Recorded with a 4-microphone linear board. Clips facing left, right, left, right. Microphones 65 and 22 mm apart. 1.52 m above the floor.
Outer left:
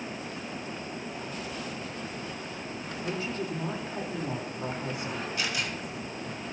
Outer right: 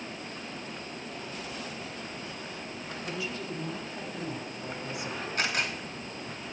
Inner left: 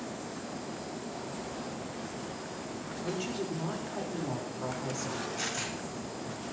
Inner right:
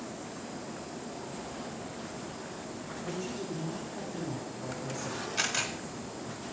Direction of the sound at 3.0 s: 40° left (ahead or behind).